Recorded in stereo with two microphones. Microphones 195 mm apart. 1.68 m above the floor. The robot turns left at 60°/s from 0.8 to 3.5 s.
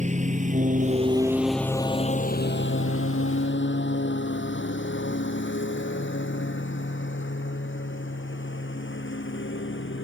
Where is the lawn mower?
35° right (ahead or behind); by 10.0 s 70° left (ahead or behind).